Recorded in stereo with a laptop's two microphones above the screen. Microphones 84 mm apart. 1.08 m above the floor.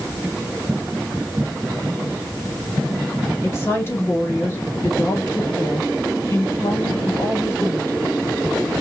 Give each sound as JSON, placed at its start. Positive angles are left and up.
{"t": 3.4, "sound": "a woman speaking", "side_deg": 30, "distance_m": 1.6}